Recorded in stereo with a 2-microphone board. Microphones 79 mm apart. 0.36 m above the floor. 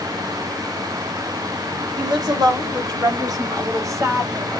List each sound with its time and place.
2.0 s a woman speaking: 65° right (ahead or behind), 1.9 m; by 4.5 s 30° right (ahead or behind), 1.3 m